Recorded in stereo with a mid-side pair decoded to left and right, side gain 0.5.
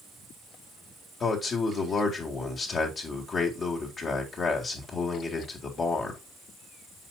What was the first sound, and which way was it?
A man speaking, 45° left.